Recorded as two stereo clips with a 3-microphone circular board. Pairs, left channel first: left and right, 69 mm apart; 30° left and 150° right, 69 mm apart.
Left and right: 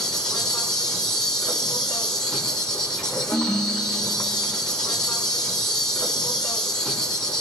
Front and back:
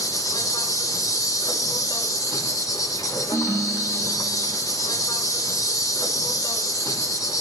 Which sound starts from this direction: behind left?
A ringtone, at 3.3 s.